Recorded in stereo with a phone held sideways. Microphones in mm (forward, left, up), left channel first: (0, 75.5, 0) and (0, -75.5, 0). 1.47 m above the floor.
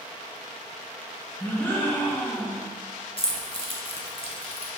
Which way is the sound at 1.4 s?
10° left (ahead or behind).